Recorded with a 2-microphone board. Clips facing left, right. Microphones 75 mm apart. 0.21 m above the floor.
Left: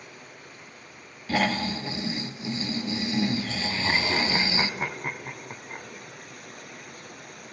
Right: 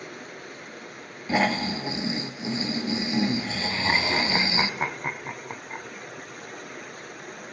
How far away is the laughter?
About 1.7 m.